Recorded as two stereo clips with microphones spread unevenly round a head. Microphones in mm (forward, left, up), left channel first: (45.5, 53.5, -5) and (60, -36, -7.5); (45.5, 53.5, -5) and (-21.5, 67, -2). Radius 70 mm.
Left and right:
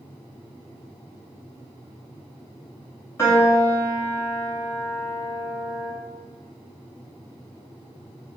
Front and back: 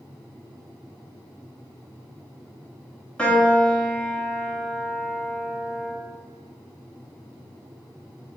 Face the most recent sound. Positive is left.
turn(degrees=60)